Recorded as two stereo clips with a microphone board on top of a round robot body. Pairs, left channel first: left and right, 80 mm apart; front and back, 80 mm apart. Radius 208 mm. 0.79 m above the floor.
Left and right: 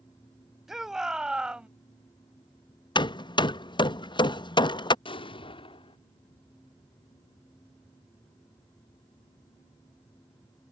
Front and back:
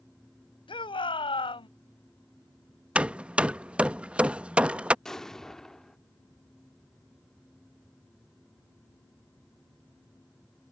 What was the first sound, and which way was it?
A shout, 5° right.